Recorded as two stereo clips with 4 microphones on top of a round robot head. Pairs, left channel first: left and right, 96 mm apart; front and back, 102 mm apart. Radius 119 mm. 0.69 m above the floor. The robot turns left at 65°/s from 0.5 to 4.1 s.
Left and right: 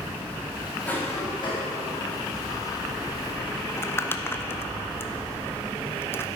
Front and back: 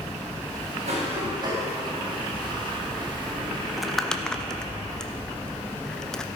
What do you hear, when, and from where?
0.8 s a cough: 165° left, 5 m; by 1.7 s 110° left, 5 m
3.7 s crumpling: 100° left, 1.1 m; by 6.3 s 75° left, 1.1 m